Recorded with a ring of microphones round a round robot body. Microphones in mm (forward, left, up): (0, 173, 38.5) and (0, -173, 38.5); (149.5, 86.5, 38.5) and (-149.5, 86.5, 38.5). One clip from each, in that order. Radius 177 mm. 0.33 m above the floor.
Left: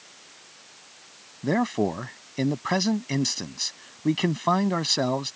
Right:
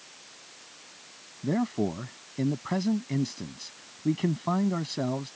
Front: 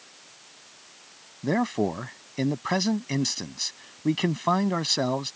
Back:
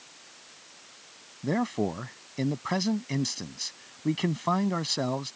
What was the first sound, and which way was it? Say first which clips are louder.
A man speaking: left 5 dB, front 3 dB; 60° left.